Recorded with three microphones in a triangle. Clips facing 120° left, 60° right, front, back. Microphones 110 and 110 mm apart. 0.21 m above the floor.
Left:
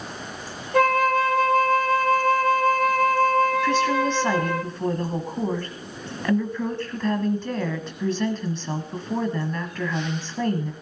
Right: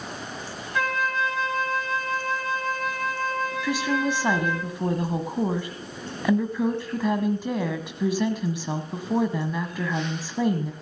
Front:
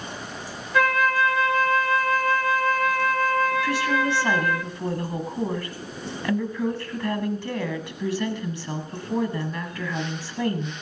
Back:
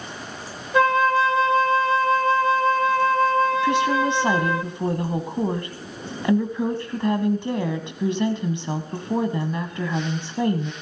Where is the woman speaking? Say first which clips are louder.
Left 4 dB, back 3 dB; 130° right, 1.3 m.